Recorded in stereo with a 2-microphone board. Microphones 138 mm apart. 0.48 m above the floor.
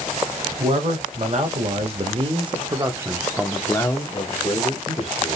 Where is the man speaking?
50° right (ahead or behind), 1.7 m; by 5.4 s 50° left (ahead or behind), 1.3 m.